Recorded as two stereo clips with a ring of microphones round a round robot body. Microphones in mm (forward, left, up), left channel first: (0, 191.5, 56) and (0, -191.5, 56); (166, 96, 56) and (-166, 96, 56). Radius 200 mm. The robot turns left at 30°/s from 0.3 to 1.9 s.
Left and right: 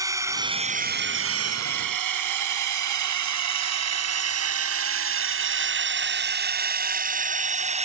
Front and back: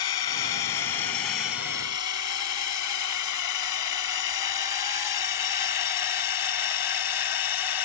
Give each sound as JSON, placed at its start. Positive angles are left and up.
{"t": 0.0, "sound": "a drone", "azimuth_deg": -10}